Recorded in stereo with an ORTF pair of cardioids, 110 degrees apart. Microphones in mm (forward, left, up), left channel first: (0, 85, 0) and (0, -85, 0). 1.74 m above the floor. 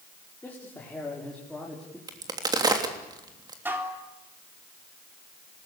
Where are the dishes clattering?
10° right, 3.5 m.